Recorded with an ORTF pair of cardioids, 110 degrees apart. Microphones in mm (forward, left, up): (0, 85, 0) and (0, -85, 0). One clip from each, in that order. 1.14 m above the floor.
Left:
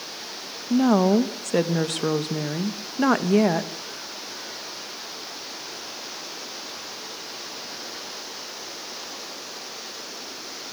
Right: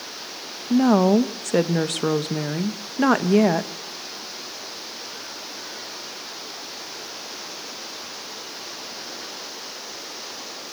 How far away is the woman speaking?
About 1.0 m.